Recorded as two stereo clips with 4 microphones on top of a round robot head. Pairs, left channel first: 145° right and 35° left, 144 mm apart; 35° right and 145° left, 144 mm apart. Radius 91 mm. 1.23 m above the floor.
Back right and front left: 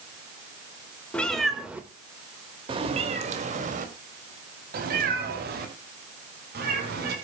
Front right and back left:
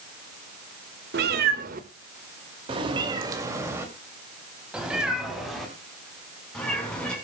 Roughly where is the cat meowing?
Behind left.